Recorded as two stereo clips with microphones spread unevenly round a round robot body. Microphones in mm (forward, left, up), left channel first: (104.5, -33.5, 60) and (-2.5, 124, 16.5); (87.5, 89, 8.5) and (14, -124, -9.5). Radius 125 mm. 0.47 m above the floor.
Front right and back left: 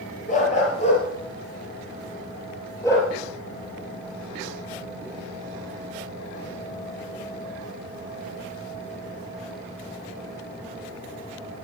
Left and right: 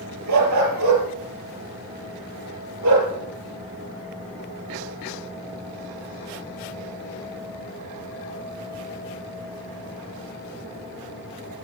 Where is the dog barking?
115° right, 5 m; by 3.1 s 135° right, 5 m.